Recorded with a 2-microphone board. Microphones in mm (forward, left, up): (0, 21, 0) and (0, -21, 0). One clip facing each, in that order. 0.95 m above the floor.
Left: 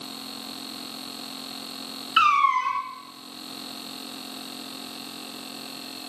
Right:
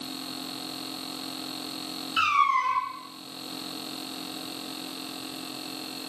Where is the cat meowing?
45° left (ahead or behind), 0.9 m.